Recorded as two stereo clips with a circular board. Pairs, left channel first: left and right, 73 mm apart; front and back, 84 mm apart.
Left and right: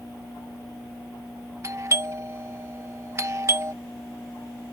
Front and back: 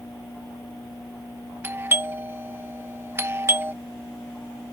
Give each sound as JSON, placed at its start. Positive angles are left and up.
{"t": 1.6, "sound": "a doorbell", "azimuth_deg": -125}